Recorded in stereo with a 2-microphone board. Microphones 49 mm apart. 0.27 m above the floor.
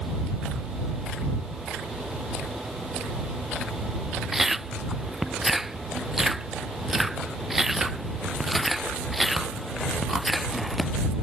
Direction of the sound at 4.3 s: 5° right (ahead or behind).